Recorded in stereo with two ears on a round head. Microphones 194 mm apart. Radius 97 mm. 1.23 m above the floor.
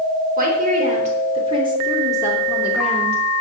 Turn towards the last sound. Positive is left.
turn(degrees=5)  # may be behind; listen again after turning